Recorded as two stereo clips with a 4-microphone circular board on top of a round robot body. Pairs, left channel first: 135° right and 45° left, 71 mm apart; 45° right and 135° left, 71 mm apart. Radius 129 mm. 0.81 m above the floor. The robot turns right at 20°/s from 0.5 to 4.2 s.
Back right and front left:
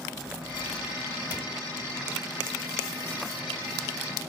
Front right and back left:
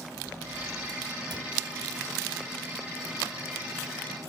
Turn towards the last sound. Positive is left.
turn(degrees=170)